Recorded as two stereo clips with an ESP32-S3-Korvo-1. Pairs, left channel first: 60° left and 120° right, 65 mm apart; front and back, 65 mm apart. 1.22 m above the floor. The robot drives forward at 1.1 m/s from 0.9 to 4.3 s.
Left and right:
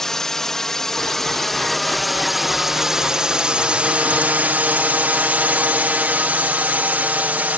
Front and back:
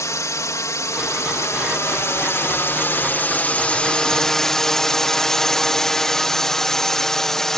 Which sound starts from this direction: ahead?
A drone, at 0.0 s.